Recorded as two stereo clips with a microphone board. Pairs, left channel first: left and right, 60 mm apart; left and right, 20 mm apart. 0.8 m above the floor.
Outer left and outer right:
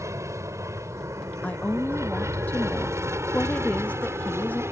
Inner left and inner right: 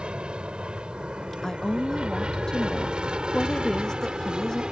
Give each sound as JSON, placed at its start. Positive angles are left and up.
{"t": 0.0, "sound": "an aircraft", "side_deg": -55}
{"t": 1.4, "sound": "a woman speaking", "side_deg": 25}